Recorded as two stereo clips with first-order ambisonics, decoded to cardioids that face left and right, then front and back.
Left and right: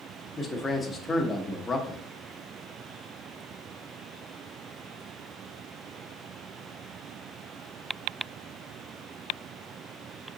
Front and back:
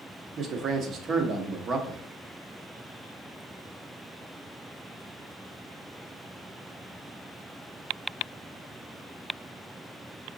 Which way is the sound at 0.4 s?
160° left.